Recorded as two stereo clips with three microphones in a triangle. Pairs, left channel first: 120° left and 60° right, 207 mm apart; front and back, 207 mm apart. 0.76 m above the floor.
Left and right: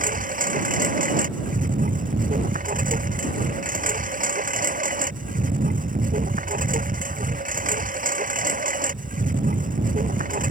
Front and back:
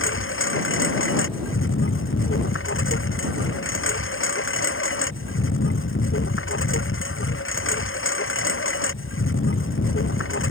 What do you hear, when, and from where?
0.0 s a lawn mower: 10° right